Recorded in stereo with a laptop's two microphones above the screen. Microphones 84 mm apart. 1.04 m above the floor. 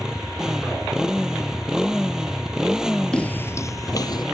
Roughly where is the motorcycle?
Centre.